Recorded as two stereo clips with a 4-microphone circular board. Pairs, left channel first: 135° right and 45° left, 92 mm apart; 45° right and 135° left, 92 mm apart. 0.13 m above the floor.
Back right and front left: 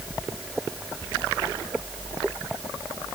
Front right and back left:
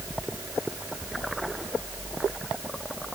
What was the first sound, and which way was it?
Only background noise.